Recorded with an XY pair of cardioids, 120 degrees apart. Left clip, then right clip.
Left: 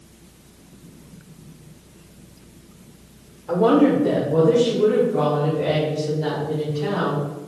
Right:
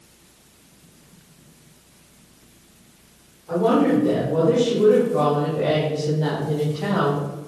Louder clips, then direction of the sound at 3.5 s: Left 2 dB; 45° left.